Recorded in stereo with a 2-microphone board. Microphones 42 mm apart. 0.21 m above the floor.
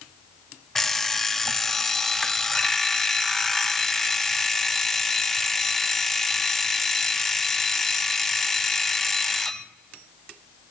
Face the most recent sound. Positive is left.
turn(degrees=5)  # may be behind; listen again after turning